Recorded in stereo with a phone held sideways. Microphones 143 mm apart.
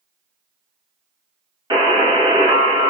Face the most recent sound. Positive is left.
turn(degrees=-30)  # may be behind; listen again after turning